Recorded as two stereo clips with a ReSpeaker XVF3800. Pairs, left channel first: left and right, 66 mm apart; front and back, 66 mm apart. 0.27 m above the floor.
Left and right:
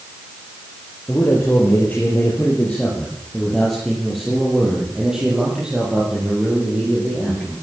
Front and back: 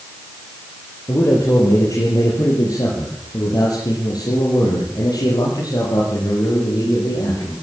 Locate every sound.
1.1 s a man speaking: 35° left, 6.5 m; by 7.5 s 25° right, 10.5 m